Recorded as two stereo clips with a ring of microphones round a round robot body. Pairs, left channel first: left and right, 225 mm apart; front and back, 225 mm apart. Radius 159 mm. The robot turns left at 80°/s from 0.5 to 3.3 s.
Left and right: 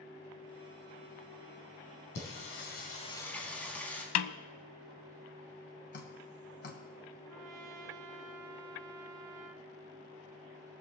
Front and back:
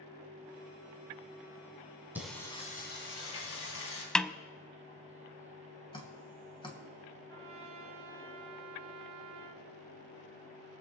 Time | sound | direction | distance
2.1 | singing | 100° left | 3 m
4.2 | a snare drum | 85° left | 0.6 m
5.9 | dripping | 65° left | 2 m
7.3 | a trumpet | 125° right | 0.5 m